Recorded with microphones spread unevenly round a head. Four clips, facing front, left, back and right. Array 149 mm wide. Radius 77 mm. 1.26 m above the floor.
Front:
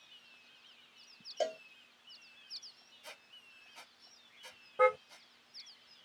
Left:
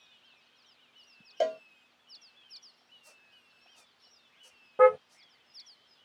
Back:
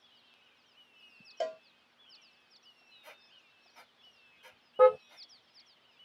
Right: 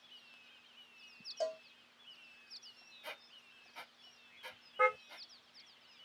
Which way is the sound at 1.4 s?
80° left.